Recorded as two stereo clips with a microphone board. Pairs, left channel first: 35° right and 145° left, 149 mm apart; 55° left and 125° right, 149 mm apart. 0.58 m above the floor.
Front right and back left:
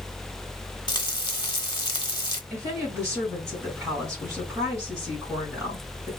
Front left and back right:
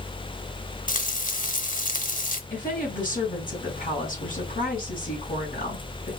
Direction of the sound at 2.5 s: 75° left.